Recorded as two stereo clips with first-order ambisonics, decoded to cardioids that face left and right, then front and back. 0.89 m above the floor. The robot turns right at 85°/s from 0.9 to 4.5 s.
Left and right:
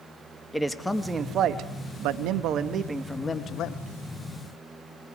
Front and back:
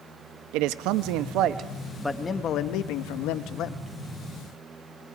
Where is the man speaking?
175° left, 0.8 m; by 3.8 s 60° left, 0.8 m.